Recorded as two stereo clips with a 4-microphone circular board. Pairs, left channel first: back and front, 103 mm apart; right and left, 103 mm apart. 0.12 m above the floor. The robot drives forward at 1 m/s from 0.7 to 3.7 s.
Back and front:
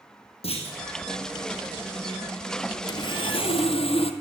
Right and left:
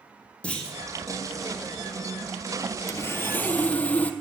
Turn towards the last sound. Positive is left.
turn(degrees=-165)